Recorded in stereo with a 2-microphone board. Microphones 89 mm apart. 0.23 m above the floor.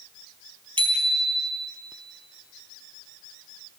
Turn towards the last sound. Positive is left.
turn(degrees=-80)